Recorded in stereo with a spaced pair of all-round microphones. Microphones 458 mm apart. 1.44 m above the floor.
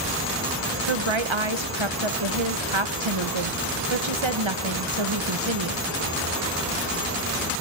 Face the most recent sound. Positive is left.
turn(degrees=-80)